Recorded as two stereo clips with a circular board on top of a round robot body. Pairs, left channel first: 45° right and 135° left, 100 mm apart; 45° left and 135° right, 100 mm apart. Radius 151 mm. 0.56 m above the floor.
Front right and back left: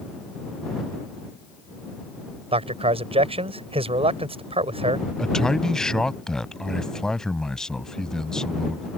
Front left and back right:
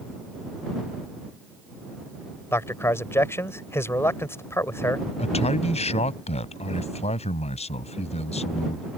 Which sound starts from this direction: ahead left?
A man speaking, at 5.2 s.